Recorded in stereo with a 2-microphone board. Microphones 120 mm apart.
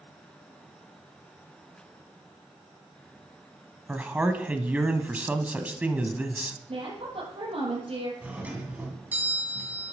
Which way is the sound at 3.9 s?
10° right (ahead or behind).